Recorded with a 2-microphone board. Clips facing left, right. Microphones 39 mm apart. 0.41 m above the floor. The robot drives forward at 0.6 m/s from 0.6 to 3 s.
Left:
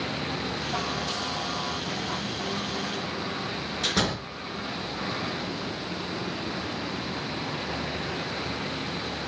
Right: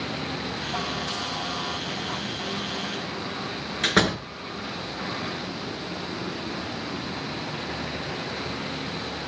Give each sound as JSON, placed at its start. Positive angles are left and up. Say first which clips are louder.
{"t": 3.8, "sound": "a door slam", "louder": "right 6 dB", "side_deg": -55, "distance_m": 4.5}